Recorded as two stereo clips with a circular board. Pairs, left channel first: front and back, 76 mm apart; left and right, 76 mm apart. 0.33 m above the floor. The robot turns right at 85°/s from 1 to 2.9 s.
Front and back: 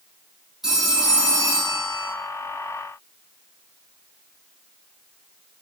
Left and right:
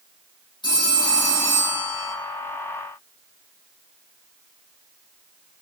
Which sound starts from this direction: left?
A phone ringing, at 0.6 s.